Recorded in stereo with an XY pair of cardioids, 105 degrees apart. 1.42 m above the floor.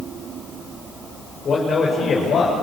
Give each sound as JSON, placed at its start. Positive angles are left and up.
{"t": 1.4, "sound": "a man speaking", "azimuth_deg": 45, "distance_m": 5.5}